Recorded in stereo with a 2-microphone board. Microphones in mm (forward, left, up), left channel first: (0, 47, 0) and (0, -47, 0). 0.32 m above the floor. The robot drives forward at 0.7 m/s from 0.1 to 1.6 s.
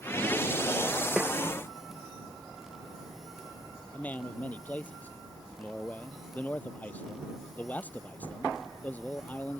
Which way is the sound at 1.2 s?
10° right (ahead or behind).